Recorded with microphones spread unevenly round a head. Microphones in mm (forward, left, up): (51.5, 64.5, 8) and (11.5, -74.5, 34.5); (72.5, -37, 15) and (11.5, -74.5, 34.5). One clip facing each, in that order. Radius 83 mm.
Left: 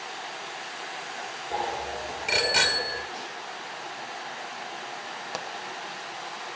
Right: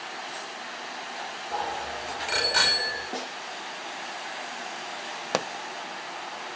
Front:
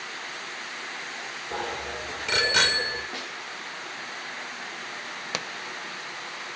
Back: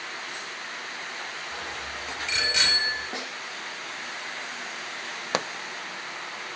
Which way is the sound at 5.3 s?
110° right.